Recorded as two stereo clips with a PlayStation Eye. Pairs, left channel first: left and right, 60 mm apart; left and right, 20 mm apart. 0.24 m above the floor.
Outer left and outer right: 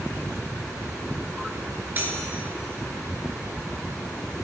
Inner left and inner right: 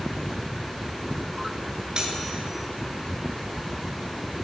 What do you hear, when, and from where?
1.9 s cutlery clinking: 35° right (ahead or behind), 2 m